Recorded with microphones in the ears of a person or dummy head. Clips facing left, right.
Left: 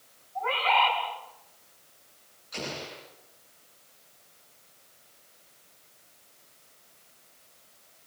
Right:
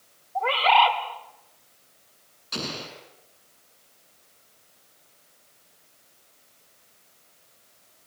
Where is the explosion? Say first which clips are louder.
Right 2 dB; 80° right, 7.5 m.